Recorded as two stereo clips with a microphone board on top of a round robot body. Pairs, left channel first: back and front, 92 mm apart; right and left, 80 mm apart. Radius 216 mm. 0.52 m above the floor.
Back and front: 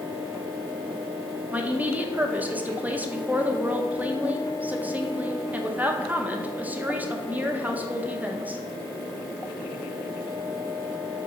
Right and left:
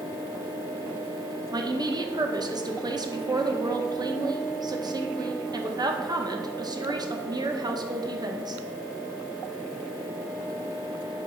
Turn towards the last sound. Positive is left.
turn(degrees=70)